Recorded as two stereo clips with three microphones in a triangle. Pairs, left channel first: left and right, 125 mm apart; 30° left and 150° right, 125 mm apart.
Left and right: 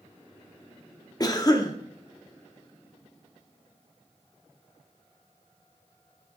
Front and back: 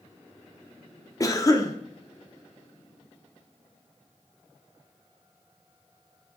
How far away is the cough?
About 0.7 m.